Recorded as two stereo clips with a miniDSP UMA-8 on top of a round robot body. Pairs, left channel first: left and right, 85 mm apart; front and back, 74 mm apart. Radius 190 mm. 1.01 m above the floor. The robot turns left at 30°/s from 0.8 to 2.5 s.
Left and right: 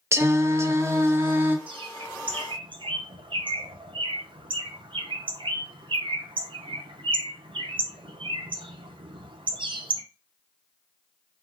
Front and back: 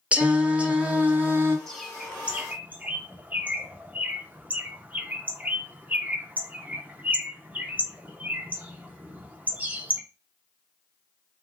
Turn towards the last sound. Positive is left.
turn(degrees=-110)